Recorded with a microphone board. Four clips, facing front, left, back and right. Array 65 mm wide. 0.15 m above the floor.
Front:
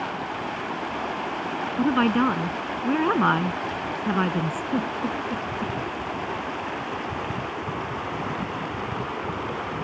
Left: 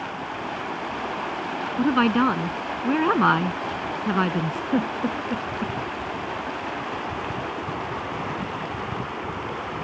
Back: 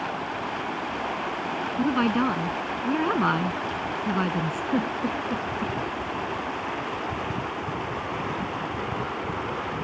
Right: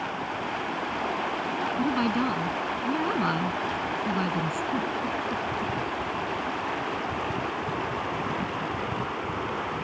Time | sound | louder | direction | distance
1.8 | a woman speaking | left 8 dB, front 3 dB | 75° left | ?
4.7 | a giggle | left 4 dB, back 1 dB | 110° left | ?